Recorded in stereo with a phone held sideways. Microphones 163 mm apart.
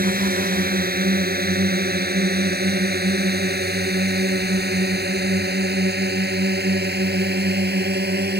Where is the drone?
65° right (ahead or behind); by 8.4 s 85° right.